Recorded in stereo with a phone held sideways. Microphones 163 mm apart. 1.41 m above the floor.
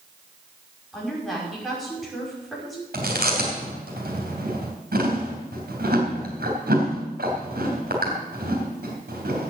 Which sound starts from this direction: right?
Chewing, at 2.9 s.